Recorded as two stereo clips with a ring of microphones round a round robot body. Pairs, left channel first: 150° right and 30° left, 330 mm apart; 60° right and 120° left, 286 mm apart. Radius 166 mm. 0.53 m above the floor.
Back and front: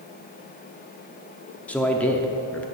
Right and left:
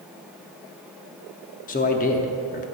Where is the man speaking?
70° right, 0.7 m.